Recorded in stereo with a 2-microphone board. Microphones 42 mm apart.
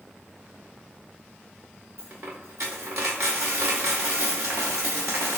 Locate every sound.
2.0 s a dropped coin: 70° right (ahead or behind), 1.5 m